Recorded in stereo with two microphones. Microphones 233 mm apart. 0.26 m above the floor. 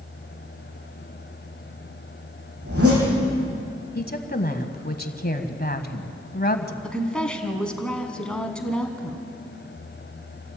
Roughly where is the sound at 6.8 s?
Centre.